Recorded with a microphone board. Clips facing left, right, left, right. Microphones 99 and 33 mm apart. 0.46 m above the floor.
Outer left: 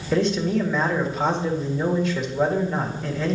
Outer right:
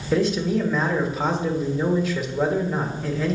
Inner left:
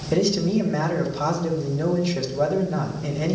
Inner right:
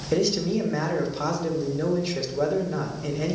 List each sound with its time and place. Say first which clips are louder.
0.1 s a man speaking: even, inner left 2 dB; 5° right (ahead or behind), 1.2 m